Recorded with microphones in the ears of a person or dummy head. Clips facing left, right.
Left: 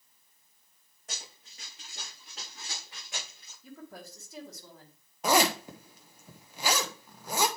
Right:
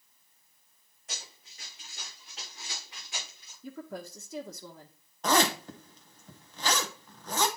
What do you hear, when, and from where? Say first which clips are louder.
1.1 s running footsteps: even; 40° left (ahead or behind), 5.5 m; by 3.5 s 50° left (ahead or behind), 7 m
3.6 s a woman speaking: right 6 dB; 65° right (ahead or behind), 0.9 m
5.2 s a zipper: left 1 dB; 10° left (ahead or behind), 0.7 m